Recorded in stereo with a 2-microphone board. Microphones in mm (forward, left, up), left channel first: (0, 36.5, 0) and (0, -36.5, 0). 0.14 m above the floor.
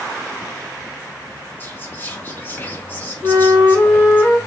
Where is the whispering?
30° left (ahead or behind), 1.4 m.